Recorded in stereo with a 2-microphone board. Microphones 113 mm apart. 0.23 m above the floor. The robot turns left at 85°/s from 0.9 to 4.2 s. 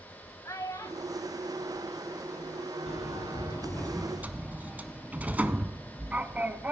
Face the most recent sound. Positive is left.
turn(degrees=-15)